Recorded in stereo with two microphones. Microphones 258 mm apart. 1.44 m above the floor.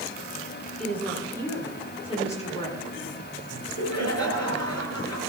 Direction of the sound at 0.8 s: 5° left (ahead or behind).